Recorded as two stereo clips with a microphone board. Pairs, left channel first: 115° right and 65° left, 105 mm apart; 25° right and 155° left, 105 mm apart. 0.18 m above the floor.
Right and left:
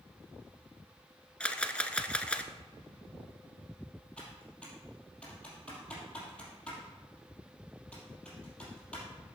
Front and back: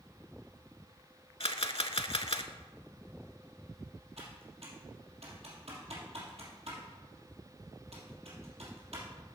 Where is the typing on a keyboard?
165° left, 3 m.